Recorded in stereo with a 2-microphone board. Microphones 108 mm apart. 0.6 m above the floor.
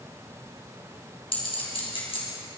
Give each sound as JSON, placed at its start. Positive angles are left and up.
{"t": 1.3, "sound": "a clink", "side_deg": 55, "distance_m": 3.5}